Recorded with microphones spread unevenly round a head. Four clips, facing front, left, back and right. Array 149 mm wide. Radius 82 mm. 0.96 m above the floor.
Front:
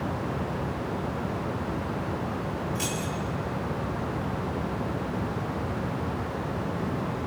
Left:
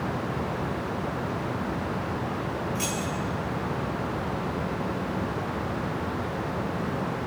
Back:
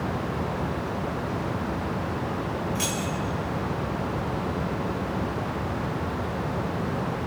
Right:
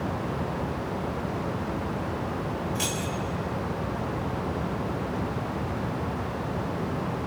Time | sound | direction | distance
2.8 | keys jangling | 125° right | 3 m